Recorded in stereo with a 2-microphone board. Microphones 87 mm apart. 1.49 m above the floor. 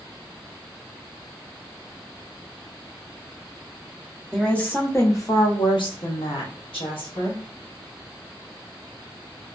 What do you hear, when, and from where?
4.3 s a woman speaking: 10° left (ahead or behind), 0.9 m; by 7.4 s 75° left (ahead or behind), 1.3 m